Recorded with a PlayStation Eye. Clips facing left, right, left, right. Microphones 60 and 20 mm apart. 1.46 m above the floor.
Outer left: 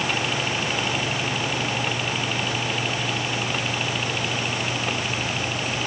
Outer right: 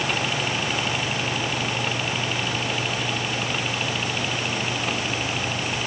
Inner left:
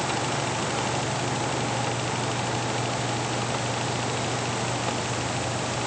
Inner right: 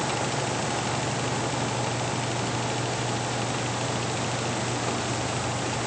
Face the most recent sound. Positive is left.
No sound to turn to.